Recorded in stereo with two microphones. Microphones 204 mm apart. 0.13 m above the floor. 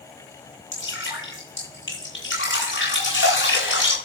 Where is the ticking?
No ticking in this recording.